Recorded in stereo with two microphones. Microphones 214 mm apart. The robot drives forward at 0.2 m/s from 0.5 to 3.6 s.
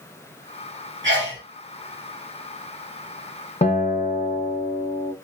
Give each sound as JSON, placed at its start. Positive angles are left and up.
{"t": 1.0, "sound": "a sneeze", "side_deg": -70, "distance_m": 2.5}
{"t": 3.6, "sound": "a guitar", "side_deg": 35, "distance_m": 0.7}